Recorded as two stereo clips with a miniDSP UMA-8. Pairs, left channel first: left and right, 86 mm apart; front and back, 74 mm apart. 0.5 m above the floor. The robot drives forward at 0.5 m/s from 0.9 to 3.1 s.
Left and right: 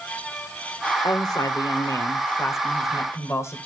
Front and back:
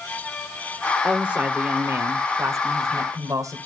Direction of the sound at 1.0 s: 105° left.